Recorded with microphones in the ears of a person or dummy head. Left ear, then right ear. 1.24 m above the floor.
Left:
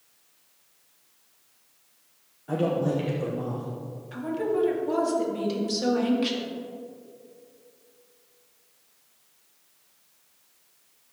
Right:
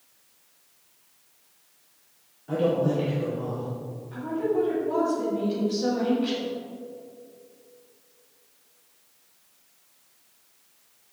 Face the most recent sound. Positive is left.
turn(degrees=55)  # may be behind; listen again after turning